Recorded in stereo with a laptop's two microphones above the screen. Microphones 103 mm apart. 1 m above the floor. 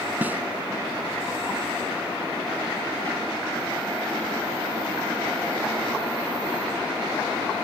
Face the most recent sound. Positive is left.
turn(degrees=-20)  # may be behind; listen again after turning